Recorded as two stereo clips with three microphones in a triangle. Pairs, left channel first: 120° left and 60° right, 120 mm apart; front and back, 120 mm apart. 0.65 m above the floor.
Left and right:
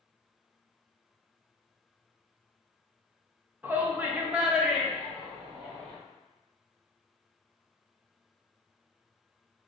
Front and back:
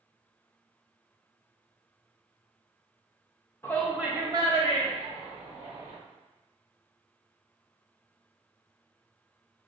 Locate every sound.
3.6 s a shout: 15° right, 0.5 m; by 5.9 s 150° right, 2 m